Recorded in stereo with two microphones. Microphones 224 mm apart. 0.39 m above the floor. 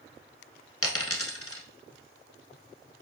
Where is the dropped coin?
85° left, 1.1 m.